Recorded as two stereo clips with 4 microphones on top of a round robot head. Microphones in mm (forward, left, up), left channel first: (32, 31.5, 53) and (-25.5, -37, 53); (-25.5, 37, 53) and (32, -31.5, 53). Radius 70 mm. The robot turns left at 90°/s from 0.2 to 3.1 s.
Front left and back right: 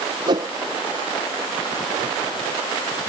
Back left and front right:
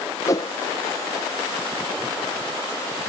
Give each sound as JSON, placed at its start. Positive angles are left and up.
{"t": 0.3, "sound": "a whoosh", "azimuth_deg": -170}